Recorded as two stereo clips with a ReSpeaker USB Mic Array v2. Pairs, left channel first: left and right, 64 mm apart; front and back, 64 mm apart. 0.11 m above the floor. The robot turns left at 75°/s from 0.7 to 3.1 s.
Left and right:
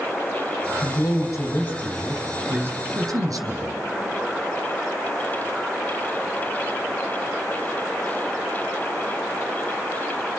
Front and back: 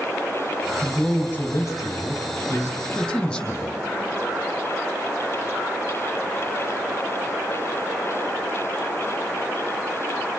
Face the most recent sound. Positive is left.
turn(degrees=-80)